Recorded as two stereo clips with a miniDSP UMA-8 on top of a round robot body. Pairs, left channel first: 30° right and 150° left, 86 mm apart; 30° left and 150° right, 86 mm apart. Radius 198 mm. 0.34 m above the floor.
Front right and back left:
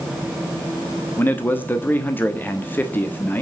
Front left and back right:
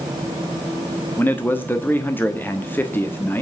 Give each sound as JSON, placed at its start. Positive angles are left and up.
{"t": 1.2, "sound": "a man speaking", "azimuth_deg": 0, "distance_m": 1.6}